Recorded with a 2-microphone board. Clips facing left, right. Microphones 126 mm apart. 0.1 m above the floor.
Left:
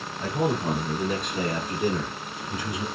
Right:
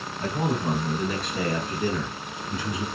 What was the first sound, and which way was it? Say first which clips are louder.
A man speaking: left 1 dB; 15° left (ahead or behind).